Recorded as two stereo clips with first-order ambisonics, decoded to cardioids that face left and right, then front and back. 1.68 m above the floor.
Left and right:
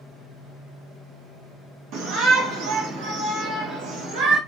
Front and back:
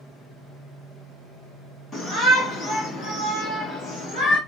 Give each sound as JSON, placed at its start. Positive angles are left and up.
{"t": 1.9, "sound": "a shout", "azimuth_deg": -75, "distance_m": 2.0}